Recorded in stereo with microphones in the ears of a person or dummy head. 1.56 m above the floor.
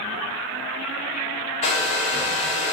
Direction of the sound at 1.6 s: 30° left (ahead or behind).